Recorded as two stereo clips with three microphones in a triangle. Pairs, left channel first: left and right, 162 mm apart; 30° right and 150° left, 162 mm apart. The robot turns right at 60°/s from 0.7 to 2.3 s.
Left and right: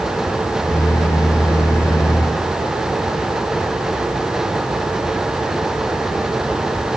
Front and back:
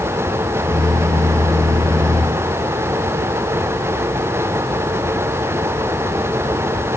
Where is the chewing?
I don't hear chewing.